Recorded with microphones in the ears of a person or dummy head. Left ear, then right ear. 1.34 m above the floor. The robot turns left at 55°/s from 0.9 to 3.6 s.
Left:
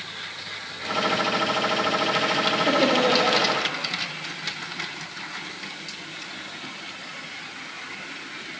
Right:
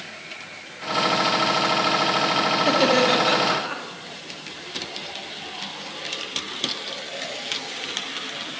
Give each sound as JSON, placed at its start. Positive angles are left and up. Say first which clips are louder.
{"t": 2.6, "sound": "laughter", "louder": "right 2 dB", "azimuth_deg": -20, "distance_m": 2.5}